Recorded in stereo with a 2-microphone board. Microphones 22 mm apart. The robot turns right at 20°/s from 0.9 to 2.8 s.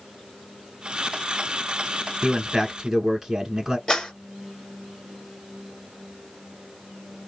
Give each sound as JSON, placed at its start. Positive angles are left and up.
{"t": 2.2, "sound": "a man speaking", "side_deg": -20, "distance_m": 1.1}
{"t": 3.9, "sound": "a clap", "side_deg": 30, "distance_m": 1.4}